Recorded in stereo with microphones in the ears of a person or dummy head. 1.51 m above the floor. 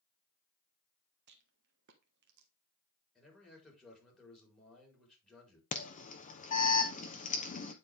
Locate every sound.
1.3 s a rattle: 65° right (ahead or behind), 1.4 m
3.1 s a man speaking: 5° left (ahead or behind), 4.5 m
5.7 s an alarm: 40° left (ahead or behind), 1.0 m